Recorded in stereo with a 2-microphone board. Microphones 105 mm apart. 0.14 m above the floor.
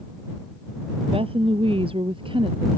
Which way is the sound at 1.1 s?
65° right (ahead or behind).